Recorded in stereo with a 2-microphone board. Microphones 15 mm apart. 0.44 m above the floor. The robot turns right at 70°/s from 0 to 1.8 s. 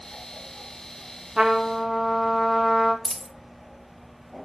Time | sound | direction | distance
1.4 | a trumpet | 50° right | 1.2 m
3.0 | a dropped coin | 15° left (ahead or behind) | 0.7 m